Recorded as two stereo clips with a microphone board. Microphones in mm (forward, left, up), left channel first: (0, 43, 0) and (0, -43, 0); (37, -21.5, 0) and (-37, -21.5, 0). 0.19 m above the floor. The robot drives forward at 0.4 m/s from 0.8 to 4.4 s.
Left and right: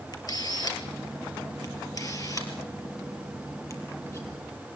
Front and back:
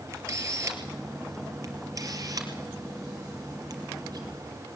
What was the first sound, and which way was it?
A camera shutter, 130° left.